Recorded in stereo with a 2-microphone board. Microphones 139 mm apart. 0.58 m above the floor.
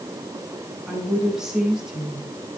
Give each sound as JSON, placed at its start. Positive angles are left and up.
{"t": 0.9, "sound": "a woman speaking", "side_deg": -5, "distance_m": 5.5}